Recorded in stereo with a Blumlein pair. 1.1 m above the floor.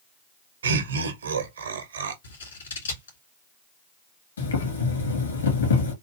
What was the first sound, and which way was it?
Laughter, 70° right.